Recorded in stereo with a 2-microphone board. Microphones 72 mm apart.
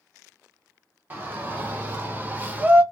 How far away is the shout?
About 1.3 m.